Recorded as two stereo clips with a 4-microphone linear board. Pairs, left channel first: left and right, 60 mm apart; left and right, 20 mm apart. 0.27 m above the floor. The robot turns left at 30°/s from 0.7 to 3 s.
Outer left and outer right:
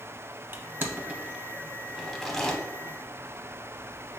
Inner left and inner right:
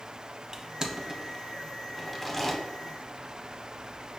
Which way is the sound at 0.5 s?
35° right (ahead or behind).